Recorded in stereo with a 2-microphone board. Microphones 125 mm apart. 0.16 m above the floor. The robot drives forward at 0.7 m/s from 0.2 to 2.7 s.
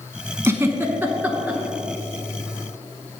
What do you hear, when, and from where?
0.4 s a giggle: 20° right (ahead or behind), 0.6 m; by 1.6 s 10° right (ahead or behind), 1.2 m